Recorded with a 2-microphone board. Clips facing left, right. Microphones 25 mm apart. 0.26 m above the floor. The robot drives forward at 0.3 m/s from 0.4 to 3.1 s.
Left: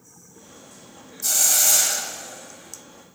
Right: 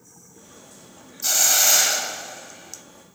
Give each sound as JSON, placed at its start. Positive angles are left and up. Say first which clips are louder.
{"t": 1.2, "sound": "a hiss", "louder": "right 2 dB", "side_deg": -25, "distance_m": 0.6}